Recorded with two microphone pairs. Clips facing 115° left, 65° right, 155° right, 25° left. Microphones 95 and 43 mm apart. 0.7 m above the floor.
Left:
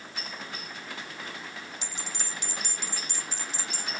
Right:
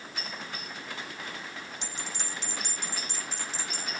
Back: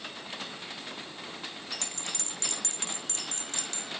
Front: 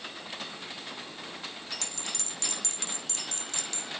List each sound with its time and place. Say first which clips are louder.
1.8 s a bell: even, even; 110° right, 1.0 m